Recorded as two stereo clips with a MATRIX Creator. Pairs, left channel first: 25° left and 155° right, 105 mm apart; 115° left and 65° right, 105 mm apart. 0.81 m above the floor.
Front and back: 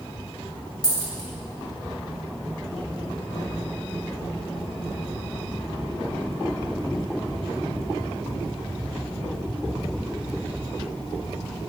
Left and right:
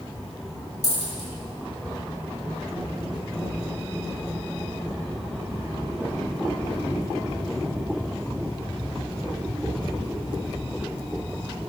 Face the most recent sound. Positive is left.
turn(degrees=-60)